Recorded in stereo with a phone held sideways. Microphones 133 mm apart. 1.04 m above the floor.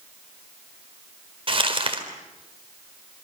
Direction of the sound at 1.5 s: 40° right (ahead or behind).